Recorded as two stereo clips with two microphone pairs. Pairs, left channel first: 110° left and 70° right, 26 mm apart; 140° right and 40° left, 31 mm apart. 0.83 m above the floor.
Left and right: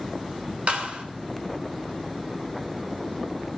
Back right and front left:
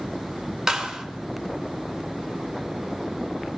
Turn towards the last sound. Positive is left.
turn(degrees=-35)